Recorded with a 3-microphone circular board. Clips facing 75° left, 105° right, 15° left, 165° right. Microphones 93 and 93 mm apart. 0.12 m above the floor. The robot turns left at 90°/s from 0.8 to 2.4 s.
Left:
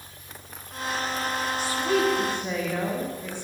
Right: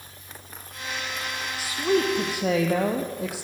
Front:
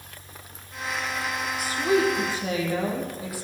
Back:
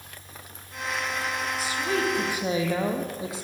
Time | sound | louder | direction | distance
1.6 | a woman speaking | right 2 dB, front 6 dB | 25° right | 4.5 m